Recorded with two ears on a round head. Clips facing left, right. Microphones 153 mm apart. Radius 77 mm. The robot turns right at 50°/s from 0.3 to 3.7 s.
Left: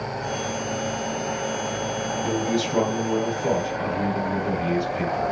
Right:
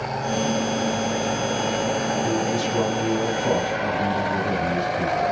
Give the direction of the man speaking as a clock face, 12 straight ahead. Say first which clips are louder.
Right 1 dB; 10 o'clock.